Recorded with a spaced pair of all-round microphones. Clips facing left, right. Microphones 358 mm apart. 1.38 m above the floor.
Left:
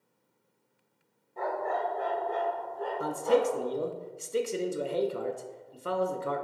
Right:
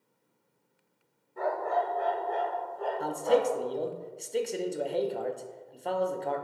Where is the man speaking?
15° left (ahead or behind), 0.7 m.